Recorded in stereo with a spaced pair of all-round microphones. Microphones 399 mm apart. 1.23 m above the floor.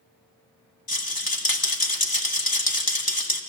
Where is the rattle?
60° left (ahead or behind), 1.5 m.